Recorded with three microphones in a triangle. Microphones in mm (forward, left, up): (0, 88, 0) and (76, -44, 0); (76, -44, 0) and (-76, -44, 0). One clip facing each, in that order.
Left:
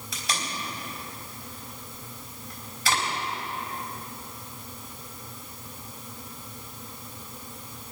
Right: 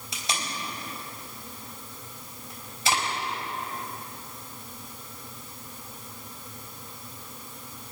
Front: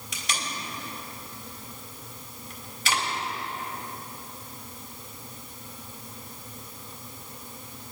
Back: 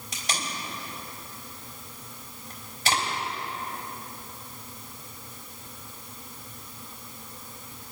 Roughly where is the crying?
No crying in this recording.